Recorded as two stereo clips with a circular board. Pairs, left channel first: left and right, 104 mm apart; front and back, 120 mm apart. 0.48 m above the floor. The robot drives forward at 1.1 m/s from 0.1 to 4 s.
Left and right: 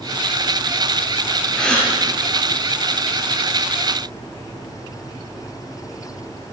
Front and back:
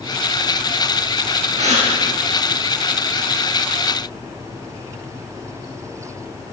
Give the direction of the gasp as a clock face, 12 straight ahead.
6 o'clock.